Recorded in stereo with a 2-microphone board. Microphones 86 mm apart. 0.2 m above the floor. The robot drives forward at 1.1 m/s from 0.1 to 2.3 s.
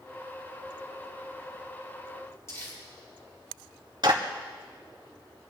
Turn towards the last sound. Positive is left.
turn(degrees=-55)  # may be behind; listen again after turning